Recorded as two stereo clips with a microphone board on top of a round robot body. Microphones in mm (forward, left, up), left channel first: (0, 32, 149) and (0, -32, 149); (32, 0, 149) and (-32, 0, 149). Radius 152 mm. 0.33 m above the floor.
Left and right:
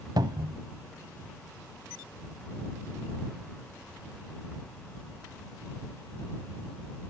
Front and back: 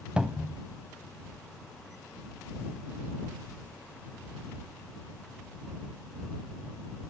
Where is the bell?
No bell in this recording.